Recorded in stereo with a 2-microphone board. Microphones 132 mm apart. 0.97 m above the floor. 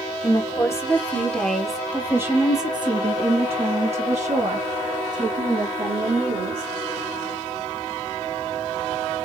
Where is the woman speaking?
30° left (ahead or behind), 1.5 m; by 6.7 s 75° right (ahead or behind), 2.5 m.